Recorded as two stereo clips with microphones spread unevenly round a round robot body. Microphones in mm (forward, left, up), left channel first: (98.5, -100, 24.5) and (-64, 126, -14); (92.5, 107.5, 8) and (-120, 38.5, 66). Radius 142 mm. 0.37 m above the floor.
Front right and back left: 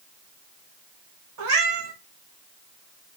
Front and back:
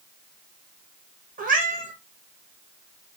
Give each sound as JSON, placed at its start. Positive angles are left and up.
{"t": 1.4, "sound": "a cat meowing", "azimuth_deg": 140, "distance_m": 0.8}